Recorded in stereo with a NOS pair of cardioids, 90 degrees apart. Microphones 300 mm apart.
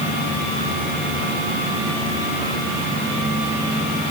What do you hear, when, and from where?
Only background noise.